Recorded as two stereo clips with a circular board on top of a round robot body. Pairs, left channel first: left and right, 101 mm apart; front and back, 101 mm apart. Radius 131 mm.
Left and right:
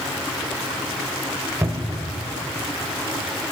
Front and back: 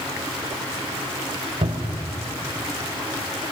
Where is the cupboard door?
160° right, 1.6 m.